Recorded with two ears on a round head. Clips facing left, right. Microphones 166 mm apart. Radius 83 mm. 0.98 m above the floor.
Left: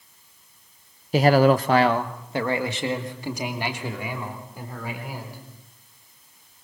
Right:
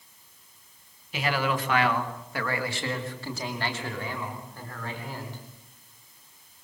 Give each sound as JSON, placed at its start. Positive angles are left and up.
{"t": 1.1, "sound": "a man speaking", "side_deg": 35, "distance_m": 0.8}